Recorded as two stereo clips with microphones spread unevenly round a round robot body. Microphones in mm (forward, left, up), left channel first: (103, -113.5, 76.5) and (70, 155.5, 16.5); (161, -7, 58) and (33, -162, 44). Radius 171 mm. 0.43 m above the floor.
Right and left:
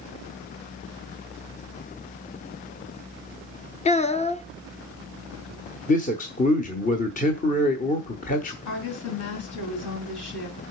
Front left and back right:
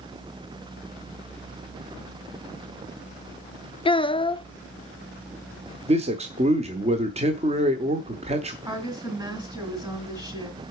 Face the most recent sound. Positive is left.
turn(degrees=-60)